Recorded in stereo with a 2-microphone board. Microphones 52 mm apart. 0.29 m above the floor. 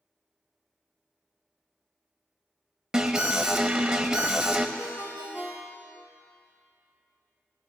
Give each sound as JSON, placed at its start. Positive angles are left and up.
{"t": 2.9, "sound": "an alarm", "side_deg": -15, "distance_m": 0.7}
{"t": 4.8, "sound": "a ringtone", "side_deg": 60, "distance_m": 3.0}